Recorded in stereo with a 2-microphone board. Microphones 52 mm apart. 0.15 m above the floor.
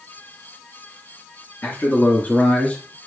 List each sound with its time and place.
1.6 s a man speaking: 45° left (ahead or behind), 2 m; by 3.0 s 20° left (ahead or behind), 2.5 m